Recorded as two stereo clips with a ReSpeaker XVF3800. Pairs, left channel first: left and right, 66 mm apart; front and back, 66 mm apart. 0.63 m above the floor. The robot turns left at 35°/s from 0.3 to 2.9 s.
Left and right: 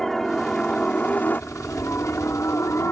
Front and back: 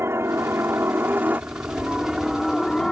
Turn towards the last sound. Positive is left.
turn(degrees=80)